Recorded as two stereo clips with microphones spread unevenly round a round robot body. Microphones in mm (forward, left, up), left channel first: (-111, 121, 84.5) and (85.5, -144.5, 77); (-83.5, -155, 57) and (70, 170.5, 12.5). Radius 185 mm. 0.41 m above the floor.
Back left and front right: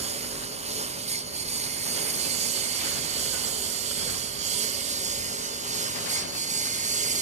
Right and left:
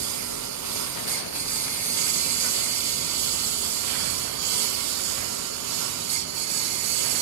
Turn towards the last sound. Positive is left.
turn(degrees=15)